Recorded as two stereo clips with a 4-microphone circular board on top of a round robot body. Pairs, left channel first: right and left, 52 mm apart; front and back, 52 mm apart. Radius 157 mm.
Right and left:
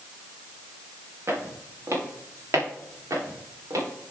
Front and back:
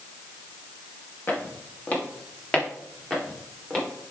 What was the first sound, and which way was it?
Footsteps, 55° left.